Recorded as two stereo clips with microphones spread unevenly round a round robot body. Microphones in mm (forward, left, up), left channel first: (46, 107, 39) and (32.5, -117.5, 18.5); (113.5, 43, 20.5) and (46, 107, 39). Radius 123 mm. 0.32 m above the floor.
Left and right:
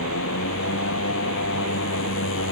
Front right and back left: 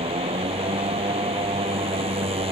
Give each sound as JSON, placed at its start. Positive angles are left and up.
{"t": 0.0, "sound": "a motorcycle", "azimuth_deg": 130}